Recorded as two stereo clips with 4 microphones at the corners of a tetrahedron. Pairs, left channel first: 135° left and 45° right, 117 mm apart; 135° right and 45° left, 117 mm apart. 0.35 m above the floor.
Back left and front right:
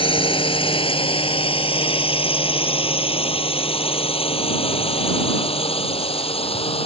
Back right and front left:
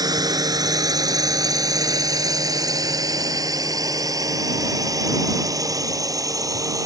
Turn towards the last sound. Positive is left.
turn(degrees=105)